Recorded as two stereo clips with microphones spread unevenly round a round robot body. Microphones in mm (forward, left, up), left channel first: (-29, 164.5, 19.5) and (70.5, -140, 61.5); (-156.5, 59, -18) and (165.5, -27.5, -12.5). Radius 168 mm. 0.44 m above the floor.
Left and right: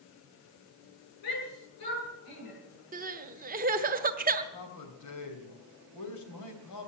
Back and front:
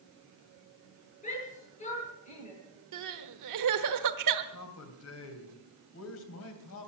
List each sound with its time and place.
1.2 s a shout: 95° left, 9.5 m
2.9 s crying: 10° right, 1.1 m
4.5 s a man speaking: 125° left, 3 m